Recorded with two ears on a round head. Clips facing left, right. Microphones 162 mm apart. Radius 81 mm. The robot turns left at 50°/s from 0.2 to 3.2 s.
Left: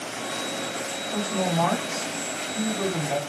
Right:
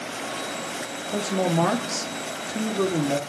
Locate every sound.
1.1 s a woman speaking: 40° right, 1.4 m; by 3.2 s 145° right, 1.4 m